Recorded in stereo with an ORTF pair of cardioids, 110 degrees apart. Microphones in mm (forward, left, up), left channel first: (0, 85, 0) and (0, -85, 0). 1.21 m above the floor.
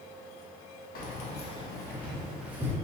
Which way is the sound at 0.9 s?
60° left.